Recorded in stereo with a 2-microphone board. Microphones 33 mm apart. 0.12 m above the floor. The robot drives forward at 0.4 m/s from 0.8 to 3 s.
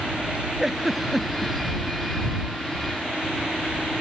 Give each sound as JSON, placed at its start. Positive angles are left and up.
{"t": 0.6, "sound": "a giggle", "side_deg": -10}